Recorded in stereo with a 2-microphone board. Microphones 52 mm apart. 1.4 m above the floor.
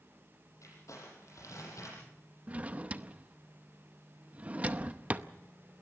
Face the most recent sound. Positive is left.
turn(degrees=-25)  # may be behind; listen again after turning